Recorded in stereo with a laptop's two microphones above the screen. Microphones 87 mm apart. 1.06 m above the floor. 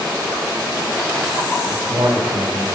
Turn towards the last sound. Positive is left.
turn(degrees=-45)  # may be behind; listen again after turning